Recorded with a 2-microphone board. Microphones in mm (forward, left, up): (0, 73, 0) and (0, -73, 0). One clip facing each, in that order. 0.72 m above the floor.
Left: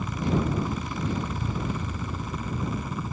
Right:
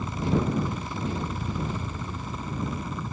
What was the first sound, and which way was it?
A helicopter, 5° left (ahead or behind).